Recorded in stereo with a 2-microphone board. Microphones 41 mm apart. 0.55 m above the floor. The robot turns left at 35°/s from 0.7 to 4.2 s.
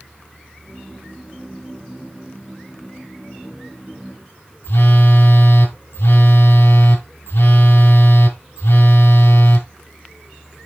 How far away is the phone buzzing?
About 7 m.